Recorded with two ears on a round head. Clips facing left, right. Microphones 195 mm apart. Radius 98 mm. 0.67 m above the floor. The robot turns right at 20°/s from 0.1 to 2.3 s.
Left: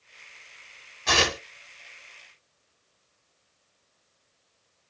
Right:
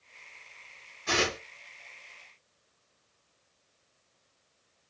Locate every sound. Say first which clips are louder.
1.1 s tearing paper: left 3 dB; 75° left (ahead or behind), 1.3 m